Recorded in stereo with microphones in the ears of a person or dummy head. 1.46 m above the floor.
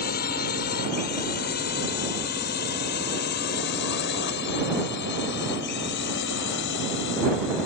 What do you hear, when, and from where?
0.0 s a drone: 50° left (ahead or behind); by 7.7 s 60° left (ahead or behind)